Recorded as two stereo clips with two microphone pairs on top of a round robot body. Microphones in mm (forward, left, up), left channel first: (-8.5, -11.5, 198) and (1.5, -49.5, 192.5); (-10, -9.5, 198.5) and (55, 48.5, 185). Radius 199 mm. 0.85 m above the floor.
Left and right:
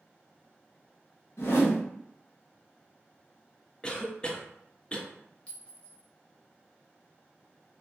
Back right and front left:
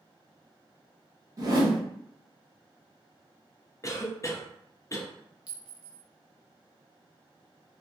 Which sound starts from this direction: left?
A whoosh, at 1.4 s.